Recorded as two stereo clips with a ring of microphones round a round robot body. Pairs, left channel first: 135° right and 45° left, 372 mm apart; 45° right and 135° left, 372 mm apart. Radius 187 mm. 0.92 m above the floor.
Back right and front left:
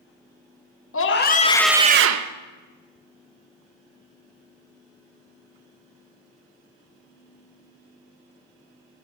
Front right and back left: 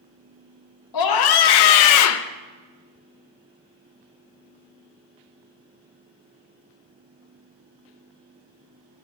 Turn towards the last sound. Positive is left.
turn(degrees=20)